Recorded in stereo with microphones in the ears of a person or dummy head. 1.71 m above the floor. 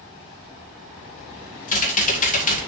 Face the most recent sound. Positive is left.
turn(degrees=45)  # may be behind; listen again after turning